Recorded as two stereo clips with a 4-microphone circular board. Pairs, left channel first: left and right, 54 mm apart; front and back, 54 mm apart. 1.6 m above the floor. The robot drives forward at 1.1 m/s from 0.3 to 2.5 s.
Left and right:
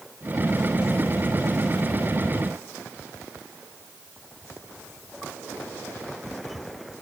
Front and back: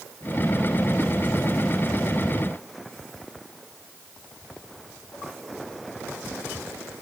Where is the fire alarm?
I don't hear a fire alarm.